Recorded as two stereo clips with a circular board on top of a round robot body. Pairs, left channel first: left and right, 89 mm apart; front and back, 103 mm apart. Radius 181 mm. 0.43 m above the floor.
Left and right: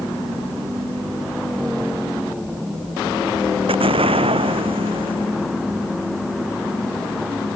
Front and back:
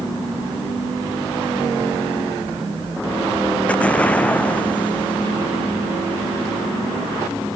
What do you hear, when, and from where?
3.7 s an explosion: 80° right